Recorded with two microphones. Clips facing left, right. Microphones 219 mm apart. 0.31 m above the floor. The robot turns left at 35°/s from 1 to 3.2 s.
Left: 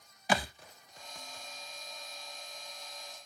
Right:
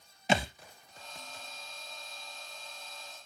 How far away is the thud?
About 0.8 m.